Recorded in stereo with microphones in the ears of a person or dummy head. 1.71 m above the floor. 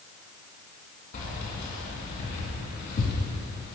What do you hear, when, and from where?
1.1 s keys jangling: 40° left (ahead or behind), 1.8 m